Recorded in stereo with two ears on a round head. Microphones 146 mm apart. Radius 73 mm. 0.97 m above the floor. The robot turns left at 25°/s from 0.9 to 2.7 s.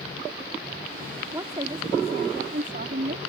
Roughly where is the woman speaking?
Ahead.